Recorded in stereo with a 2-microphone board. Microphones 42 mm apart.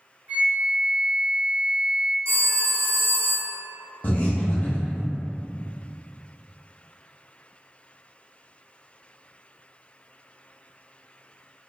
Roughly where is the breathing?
Left.